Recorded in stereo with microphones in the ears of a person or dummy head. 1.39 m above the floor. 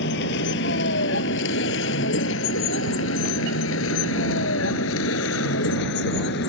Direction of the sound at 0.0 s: 75° left (ahead or behind).